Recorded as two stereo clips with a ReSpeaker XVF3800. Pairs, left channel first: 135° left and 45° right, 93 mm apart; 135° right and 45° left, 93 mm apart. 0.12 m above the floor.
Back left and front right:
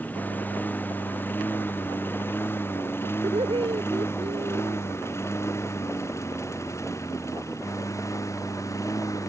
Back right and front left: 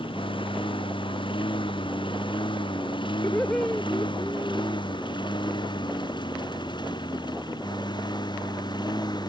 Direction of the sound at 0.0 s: 155° right.